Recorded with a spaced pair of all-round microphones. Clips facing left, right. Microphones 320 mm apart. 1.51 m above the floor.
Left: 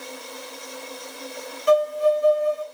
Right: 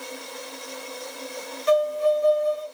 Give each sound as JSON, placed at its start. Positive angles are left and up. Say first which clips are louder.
{"t": 1.7, "sound": "a violin", "louder": "left 2 dB", "side_deg": -20, "distance_m": 1.1}